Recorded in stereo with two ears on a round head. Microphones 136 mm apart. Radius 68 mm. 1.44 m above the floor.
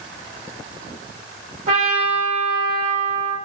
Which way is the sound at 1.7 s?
45° right (ahead or behind).